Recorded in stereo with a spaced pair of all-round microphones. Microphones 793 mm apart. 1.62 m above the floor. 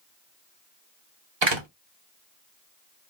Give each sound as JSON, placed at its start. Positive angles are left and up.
{"t": 1.4, "sound": "a door slam", "side_deg": -35, "distance_m": 0.9}